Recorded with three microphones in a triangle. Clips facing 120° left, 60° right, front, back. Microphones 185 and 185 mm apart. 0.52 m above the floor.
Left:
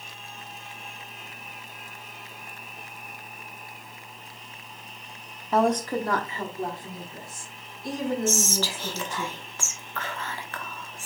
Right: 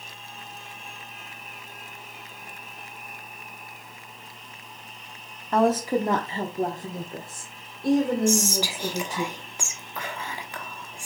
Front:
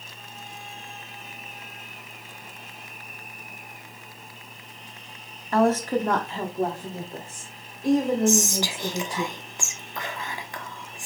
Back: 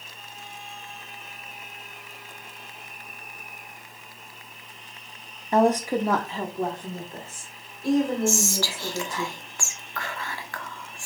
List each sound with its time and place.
5.5 s a woman speaking: 165° right, 0.7 m; by 9.3 s 65° right, 2 m
8.3 s whispering: 15° right, 0.9 m